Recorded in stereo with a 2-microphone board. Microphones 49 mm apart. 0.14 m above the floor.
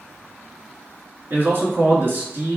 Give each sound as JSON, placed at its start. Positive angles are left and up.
{"t": 1.3, "sound": "a man speaking", "side_deg": -45, "distance_m": 1.6}